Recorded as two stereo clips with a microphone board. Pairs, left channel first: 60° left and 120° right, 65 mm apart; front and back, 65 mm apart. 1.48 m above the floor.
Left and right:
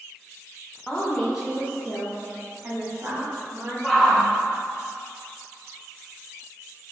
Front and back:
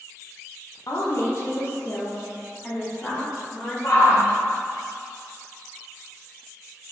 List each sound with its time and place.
0.9 s a woman speaking: 20° right, 0.7 m; by 3.7 s 95° right, 1.5 m
3.8 s a shout: 30° right, 1.1 m